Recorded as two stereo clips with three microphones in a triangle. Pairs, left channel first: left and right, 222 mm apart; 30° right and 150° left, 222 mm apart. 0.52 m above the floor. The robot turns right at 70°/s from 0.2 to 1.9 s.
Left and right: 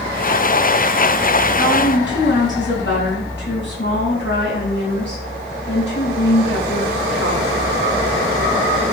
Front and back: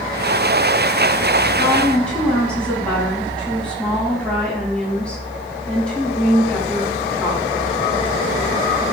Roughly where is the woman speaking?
Ahead left.